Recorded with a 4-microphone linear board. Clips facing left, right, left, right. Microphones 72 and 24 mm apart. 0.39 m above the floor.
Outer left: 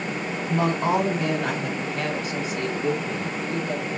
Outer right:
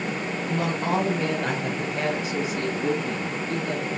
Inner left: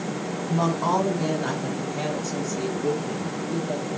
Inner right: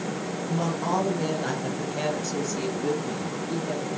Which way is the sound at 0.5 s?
25° left (ahead or behind).